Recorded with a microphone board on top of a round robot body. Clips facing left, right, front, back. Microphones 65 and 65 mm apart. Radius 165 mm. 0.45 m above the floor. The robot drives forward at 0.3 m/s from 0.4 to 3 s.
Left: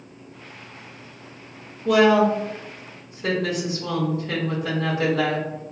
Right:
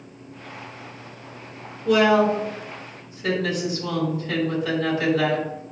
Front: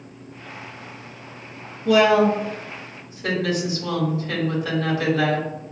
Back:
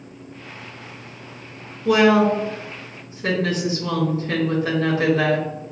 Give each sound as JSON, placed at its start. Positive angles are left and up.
{"t": 1.9, "sound": "a woman speaking", "azimuth_deg": 115, "distance_m": 2.5}